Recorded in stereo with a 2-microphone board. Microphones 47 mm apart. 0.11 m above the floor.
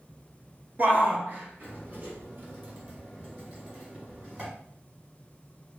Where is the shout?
40° right (ahead or behind), 1.3 m.